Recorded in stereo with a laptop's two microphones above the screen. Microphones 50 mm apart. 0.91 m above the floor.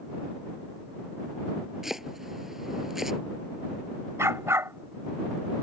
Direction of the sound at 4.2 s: 70° right (ahead or behind).